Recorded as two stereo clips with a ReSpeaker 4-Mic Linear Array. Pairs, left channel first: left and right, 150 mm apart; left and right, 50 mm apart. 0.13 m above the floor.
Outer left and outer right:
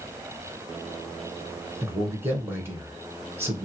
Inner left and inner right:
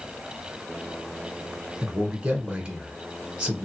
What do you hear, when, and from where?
1.8 s a man speaking: 15° right (ahead or behind), 1.1 m